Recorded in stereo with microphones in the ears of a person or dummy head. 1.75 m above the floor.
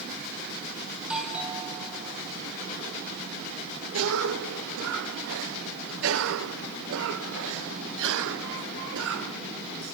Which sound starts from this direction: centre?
A doorbell, at 1.0 s.